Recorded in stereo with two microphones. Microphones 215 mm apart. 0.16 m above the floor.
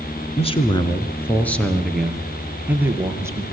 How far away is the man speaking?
About 2.5 m.